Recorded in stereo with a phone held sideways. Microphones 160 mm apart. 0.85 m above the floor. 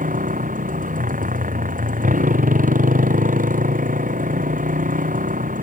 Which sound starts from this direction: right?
A motorcycle, at 0.0 s.